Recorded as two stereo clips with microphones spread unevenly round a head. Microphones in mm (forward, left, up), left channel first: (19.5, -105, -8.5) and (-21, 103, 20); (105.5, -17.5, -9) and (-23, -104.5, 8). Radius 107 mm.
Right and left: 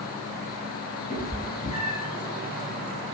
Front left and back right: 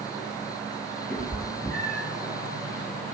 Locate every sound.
1.1 s a cat meowing: 50° right, 0.8 m